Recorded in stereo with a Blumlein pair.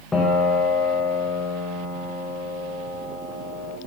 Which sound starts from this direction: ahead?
A piano, at 0.1 s.